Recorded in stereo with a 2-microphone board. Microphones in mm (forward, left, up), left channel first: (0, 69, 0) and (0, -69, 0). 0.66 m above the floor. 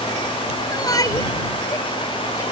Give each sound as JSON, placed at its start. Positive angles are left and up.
{"t": 0.7, "sound": "a shout", "side_deg": 30}